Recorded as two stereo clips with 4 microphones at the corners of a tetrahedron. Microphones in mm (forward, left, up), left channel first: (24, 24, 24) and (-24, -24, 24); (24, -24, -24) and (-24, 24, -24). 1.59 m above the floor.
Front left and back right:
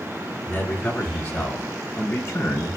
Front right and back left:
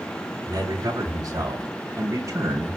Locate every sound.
0.5 s a man speaking: 105° left, 5 m; by 2.8 s 90° left, 4.5 m